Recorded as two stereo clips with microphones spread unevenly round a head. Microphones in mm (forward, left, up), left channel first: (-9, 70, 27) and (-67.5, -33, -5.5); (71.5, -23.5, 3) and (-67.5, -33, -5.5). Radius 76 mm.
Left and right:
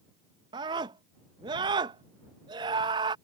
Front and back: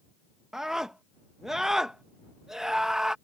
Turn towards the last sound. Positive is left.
turn(degrees=-90)